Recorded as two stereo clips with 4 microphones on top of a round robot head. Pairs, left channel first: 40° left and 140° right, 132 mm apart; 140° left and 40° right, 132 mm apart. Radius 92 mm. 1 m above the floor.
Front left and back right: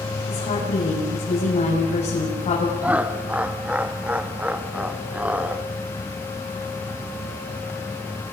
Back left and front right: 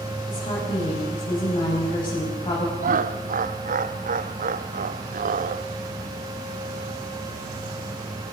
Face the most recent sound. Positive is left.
turn(degrees=-60)